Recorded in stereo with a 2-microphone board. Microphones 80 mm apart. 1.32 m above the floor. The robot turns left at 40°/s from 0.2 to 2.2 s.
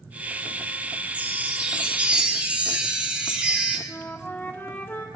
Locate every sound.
1.1 s a chime: 20° right (ahead or behind), 0.9 m; by 3.8 s 15° right (ahead or behind), 0.9 m
3.9 s a flute: 25° left (ahead or behind), 0.7 m